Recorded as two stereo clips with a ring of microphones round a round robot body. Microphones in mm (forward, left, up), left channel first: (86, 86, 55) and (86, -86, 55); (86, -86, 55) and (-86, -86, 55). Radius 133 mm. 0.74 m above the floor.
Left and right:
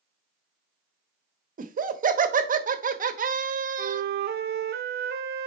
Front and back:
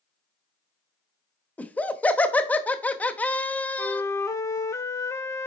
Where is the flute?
75° right, 0.6 m.